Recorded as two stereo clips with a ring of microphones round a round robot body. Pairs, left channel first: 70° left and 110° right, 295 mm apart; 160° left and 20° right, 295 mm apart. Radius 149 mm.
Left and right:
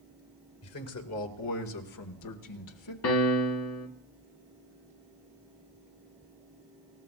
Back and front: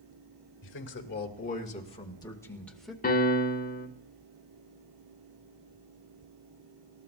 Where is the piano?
100° left, 1.6 m.